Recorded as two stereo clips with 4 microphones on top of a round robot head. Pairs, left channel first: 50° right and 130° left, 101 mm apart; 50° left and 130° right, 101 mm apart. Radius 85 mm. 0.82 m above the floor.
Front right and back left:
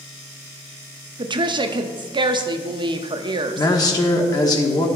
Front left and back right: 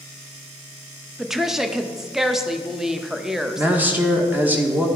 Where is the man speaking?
65° right, 1.1 m.